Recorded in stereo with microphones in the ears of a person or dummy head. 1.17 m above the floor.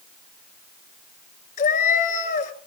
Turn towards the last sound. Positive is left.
turn(degrees=55)  # may be behind; listen again after turning